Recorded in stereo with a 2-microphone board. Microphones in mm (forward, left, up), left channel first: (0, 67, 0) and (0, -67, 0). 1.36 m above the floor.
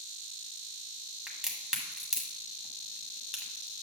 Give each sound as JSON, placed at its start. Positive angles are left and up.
{"t": 1.3, "sound": "a crack", "side_deg": -5, "distance_m": 1.4}